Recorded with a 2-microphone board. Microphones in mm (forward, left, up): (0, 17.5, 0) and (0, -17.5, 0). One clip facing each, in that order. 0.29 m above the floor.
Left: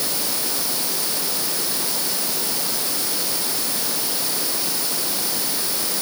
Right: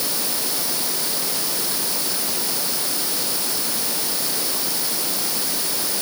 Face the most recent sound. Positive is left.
No sound to turn to.